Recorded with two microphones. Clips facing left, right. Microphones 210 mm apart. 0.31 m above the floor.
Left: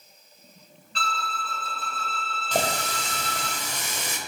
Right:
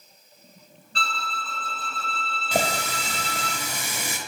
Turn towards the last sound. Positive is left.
turn(degrees=-10)  # may be behind; listen again after turning